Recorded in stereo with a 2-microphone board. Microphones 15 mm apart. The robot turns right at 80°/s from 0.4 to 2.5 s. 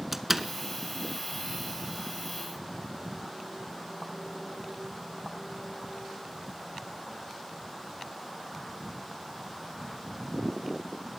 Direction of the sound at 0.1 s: 20° right (ahead or behind).